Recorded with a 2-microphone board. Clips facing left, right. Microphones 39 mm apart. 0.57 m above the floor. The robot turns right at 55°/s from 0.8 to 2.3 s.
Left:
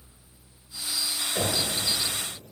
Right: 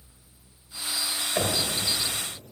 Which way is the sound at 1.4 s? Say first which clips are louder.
Right 1 dB; 65° right (ahead or behind).